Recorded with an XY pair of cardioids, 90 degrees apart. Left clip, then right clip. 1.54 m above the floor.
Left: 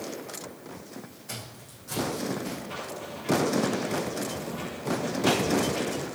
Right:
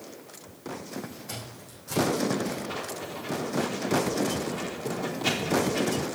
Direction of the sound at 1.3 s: 20° right.